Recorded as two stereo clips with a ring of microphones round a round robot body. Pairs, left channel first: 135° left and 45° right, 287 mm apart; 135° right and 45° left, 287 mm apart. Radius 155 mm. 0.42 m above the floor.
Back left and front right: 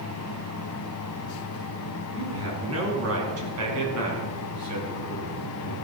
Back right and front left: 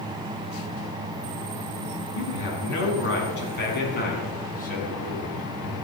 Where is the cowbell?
I don't hear a cowbell.